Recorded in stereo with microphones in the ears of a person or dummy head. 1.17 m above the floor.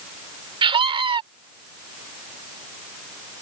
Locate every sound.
0.6 s a scream: 35° right (ahead or behind)